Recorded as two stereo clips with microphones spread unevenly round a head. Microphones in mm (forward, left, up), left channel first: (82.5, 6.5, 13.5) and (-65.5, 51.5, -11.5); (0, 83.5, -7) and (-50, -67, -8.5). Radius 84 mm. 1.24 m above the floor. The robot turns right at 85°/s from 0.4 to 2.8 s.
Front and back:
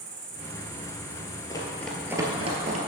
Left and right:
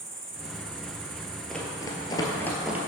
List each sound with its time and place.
0.0 s an insect: 170° right, 1.2 m; by 2.9 s 35° left, 1.2 m
1.5 s running footsteps: 15° right, 1.4 m; by 2.8 s straight behind, 1.4 m